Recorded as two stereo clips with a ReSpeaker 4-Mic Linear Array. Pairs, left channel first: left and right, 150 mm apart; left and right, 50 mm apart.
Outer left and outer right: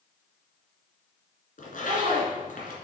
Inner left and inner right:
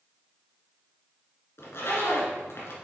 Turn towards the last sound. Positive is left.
turn(degrees=65)  # may be behind; listen again after turning